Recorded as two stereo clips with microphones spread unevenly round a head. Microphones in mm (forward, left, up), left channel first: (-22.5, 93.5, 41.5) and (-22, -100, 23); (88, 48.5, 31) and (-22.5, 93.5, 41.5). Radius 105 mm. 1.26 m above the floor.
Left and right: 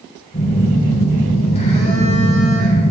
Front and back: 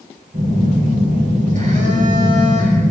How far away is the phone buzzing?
About 6.5 m.